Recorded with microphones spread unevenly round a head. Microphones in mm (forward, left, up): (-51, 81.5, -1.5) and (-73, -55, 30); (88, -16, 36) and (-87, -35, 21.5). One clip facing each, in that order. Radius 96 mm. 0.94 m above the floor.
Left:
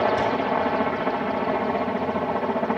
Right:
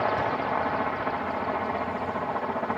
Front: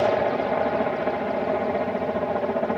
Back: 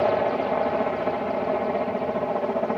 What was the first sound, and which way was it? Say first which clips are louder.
A helicopter: left 5 dB, even; 95° left.